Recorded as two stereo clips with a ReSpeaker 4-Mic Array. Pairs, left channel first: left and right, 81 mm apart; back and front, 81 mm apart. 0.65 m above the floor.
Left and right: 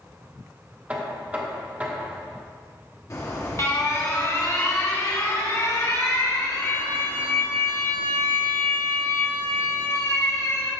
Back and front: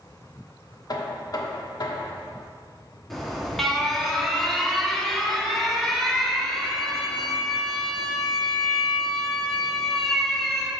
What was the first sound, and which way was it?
Knocking, 160° right.